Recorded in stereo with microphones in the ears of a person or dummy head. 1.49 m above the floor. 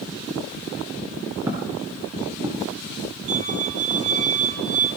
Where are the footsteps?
15° right (ahead or behind), 3.5 m; by 2.7 s 30° right (ahead or behind), 4.5 m.